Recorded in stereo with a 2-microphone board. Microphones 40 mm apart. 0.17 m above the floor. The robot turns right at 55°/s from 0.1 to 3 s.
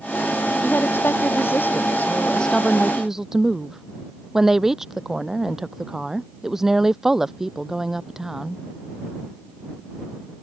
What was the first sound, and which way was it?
A woman speaking, 60° left.